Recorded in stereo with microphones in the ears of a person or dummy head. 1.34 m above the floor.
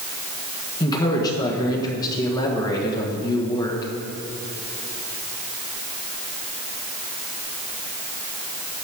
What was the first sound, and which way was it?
A man speaking, 20° left (ahead or behind).